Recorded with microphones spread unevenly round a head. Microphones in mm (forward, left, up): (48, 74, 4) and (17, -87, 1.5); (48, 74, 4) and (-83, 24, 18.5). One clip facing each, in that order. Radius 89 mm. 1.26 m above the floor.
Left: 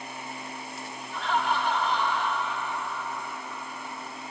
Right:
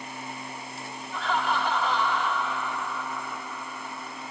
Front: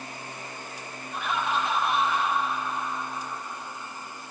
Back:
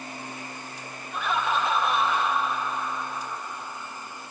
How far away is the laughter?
About 1.9 m.